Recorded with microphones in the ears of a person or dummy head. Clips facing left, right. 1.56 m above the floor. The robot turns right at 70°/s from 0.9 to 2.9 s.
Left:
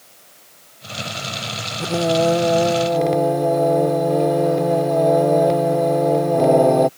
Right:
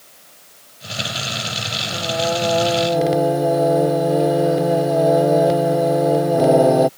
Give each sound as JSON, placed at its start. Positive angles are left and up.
{"t": 1.8, "sound": "singing", "azimuth_deg": 105}